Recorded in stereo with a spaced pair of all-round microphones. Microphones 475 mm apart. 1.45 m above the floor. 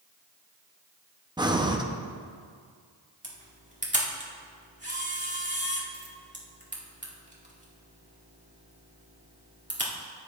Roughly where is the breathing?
Centre.